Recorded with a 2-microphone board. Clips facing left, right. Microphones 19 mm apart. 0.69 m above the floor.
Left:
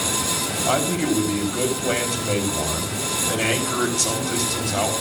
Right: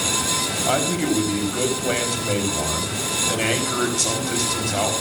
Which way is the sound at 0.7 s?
5° right (ahead or behind).